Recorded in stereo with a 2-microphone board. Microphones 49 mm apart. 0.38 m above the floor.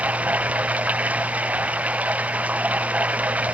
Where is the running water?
30° right (ahead or behind).